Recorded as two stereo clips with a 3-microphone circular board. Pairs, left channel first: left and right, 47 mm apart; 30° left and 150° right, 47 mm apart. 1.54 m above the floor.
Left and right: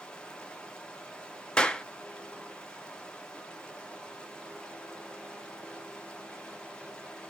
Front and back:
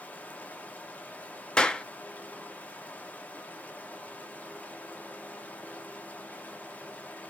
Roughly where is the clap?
Ahead left.